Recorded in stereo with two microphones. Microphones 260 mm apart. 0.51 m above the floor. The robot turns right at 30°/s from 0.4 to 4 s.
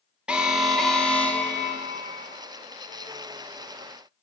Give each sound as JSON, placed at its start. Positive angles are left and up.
{"t": 0.3, "sound": "an alarm", "side_deg": -5, "distance_m": 0.9}